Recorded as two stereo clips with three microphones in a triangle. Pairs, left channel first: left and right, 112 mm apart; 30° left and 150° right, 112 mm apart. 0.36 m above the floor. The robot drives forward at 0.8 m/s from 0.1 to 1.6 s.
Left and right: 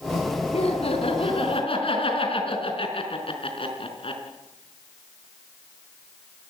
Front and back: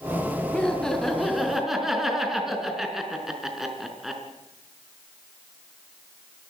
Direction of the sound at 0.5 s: 110° left.